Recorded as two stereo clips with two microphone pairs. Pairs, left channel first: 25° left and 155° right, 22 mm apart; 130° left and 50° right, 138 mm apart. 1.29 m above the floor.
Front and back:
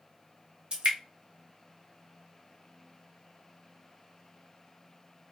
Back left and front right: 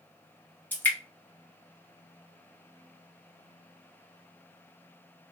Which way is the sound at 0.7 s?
155° right.